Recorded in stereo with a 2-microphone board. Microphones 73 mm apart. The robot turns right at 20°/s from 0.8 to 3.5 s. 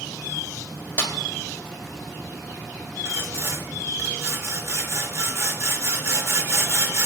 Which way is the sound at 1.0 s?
35° left (ahead or behind).